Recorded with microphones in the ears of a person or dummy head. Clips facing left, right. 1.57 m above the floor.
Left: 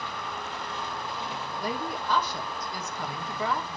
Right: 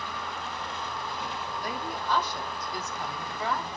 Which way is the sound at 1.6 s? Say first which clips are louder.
Left 4 dB; 70° left (ahead or behind).